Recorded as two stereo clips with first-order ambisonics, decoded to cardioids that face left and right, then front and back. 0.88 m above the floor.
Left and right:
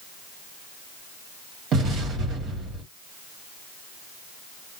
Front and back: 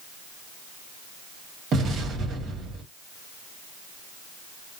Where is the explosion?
135° right, 1.4 m.